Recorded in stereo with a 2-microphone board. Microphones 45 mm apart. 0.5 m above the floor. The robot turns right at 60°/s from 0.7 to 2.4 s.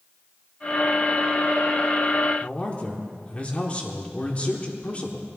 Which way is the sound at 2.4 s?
30° left (ahead or behind).